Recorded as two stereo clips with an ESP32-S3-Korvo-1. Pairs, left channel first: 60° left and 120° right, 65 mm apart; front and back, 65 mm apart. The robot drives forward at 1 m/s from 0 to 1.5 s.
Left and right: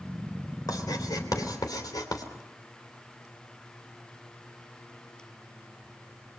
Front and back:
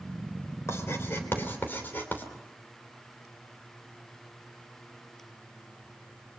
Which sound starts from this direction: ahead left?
Writing, at 0.7 s.